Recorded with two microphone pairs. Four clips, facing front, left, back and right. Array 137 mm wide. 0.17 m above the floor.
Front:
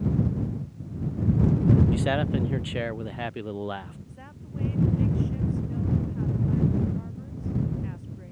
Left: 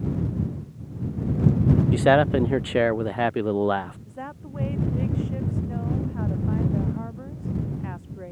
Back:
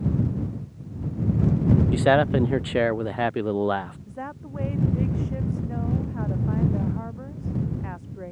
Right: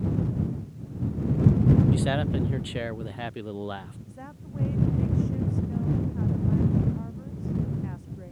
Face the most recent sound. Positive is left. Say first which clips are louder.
# left 6 dB, back 9 dB
turn(degrees=145)